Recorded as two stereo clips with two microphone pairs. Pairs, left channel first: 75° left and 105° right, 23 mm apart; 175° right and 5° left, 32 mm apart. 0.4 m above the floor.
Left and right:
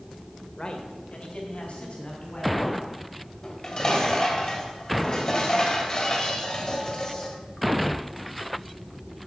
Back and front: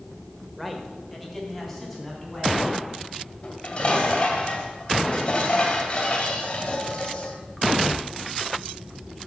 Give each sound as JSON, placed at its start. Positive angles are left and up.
{"t": 0.6, "sound": "a man speaking", "azimuth_deg": 105, "distance_m": 1.1}
{"t": 3.4, "sound": "dishes clattering", "azimuth_deg": 130, "distance_m": 1.8}